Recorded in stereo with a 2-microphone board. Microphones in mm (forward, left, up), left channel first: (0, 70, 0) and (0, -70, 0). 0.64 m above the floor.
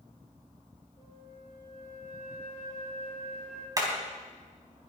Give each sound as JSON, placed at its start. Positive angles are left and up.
{"t": 1.0, "sound": "a flute", "side_deg": 40, "distance_m": 4.0}
{"t": 3.8, "sound": "hammering", "side_deg": -25, "distance_m": 3.5}